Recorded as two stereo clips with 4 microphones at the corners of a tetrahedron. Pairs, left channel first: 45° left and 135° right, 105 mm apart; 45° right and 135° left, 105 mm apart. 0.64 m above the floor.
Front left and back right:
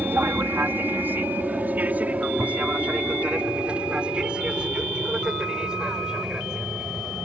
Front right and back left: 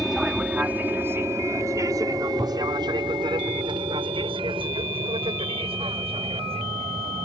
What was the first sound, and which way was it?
An aircraft, 150° right.